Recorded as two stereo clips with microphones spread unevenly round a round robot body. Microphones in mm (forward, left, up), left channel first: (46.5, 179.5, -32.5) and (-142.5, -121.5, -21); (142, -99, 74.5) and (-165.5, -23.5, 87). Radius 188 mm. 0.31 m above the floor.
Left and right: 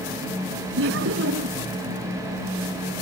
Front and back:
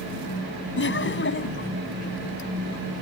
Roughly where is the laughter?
Ahead right.